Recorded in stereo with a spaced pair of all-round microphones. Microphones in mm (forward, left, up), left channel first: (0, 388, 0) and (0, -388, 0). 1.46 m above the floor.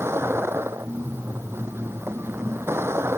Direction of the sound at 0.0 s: 5° right (ahead or behind).